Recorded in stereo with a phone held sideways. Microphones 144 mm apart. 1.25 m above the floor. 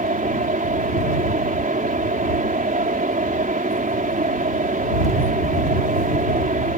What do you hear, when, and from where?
0.0 s a fan: 70° right (ahead or behind)